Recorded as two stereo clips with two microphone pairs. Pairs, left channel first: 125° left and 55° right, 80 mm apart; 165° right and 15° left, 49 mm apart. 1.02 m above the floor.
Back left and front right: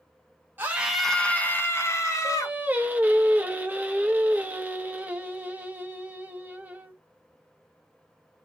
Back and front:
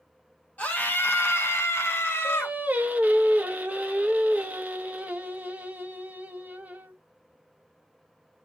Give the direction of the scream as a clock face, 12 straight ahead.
4 o'clock.